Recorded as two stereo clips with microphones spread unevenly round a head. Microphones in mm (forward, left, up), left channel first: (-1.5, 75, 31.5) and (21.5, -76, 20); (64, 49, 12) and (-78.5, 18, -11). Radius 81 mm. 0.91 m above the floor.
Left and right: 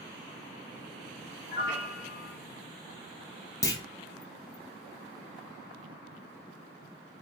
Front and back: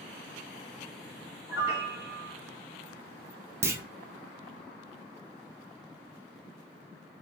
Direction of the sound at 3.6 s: 155° left.